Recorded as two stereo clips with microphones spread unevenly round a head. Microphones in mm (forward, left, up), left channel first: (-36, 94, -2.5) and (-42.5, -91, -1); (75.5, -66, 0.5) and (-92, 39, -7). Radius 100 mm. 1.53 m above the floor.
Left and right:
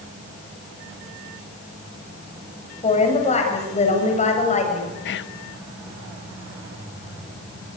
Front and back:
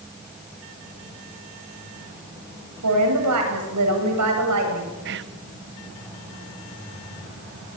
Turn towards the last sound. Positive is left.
turn(degrees=110)